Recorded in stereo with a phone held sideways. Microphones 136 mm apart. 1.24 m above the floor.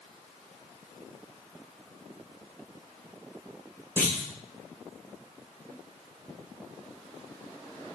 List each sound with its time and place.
4.0 s a clunk: 15° left (ahead or behind), 1.1 m